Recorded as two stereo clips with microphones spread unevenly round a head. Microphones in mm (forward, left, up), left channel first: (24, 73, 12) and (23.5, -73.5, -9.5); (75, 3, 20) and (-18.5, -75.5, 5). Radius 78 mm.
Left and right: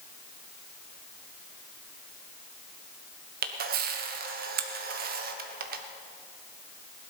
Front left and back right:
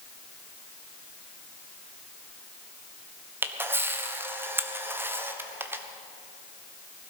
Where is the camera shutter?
65° right, 1.3 m.